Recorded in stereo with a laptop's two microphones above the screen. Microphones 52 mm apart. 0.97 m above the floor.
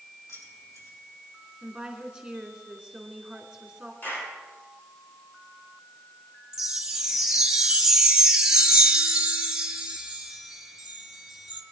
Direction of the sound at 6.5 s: 15° right (ahead or behind).